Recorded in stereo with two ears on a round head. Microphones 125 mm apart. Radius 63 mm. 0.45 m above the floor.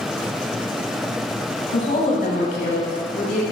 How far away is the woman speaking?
About 2.5 m.